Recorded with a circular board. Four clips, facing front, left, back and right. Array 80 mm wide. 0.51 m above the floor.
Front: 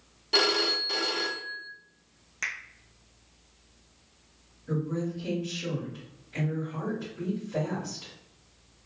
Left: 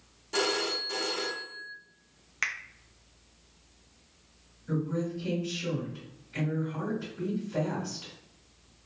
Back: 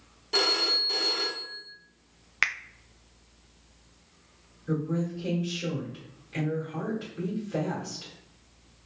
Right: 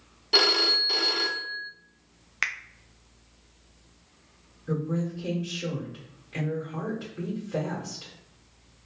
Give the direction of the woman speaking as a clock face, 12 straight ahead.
4 o'clock.